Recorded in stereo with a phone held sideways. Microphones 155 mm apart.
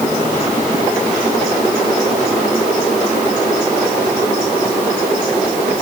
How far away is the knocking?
I don't hear knocking.